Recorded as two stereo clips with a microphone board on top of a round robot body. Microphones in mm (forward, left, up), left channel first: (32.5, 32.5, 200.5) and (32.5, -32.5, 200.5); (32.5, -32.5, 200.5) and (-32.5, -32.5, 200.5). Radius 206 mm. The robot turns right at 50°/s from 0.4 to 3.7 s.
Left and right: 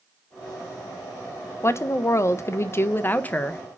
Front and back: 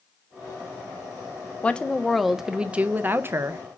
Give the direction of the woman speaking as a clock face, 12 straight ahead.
10 o'clock.